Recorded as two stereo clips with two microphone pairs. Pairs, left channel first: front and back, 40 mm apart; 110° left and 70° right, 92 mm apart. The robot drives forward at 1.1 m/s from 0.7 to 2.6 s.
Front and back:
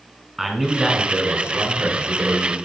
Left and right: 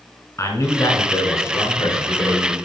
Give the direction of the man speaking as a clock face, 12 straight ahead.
9 o'clock.